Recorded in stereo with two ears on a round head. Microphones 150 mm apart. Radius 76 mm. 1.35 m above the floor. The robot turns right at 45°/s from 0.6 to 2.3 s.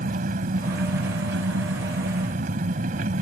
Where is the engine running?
125° right; by 3.2 s 50° right.